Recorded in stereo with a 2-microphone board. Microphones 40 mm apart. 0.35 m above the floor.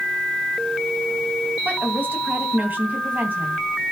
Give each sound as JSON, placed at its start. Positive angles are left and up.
{"t": 1.6, "sound": "a woman speaking", "side_deg": -45, "distance_m": 3.0}